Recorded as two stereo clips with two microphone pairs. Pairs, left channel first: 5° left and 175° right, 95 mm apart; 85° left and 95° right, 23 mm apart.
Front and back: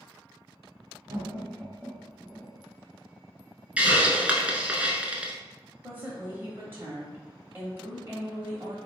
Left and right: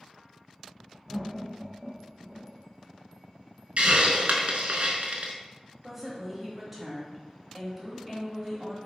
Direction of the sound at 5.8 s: 165° right.